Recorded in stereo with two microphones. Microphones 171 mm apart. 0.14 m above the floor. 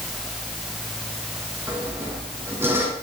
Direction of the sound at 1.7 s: 15° right (ahead or behind).